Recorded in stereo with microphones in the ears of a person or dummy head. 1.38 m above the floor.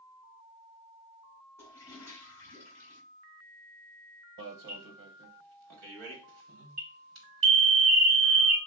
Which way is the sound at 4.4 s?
70° right (ahead or behind).